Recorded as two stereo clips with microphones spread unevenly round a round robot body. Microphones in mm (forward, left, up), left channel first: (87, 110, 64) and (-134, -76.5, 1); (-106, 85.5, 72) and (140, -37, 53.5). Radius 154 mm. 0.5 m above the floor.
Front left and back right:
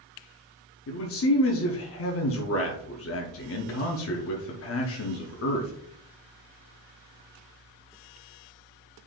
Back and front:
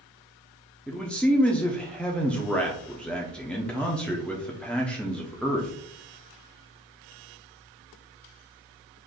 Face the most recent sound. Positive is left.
turn(degrees=65)